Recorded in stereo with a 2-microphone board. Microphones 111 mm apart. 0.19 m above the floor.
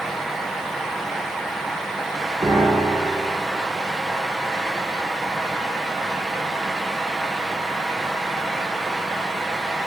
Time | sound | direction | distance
2.4 | a piano | 40° right (ahead or behind) | 2.5 m